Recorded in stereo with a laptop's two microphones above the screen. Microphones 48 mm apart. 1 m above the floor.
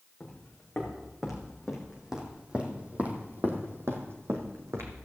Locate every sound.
0.2 s footsteps: 10° left (ahead or behind), 3.5 m; by 5.0 s 65° right (ahead or behind), 2.5 m